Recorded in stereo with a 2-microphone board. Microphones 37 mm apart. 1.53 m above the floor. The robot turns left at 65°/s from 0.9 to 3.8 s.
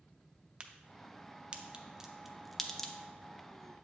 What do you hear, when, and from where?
0.6 s a crack: 30° right (ahead or behind), 0.5 m; by 2.9 s 10° left (ahead or behind), 0.5 m